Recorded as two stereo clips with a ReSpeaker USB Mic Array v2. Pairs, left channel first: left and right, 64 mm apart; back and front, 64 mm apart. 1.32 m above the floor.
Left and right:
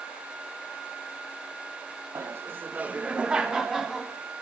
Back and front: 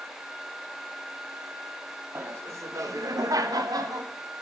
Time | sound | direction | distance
2.1 | laughter | 50° right | 0.8 m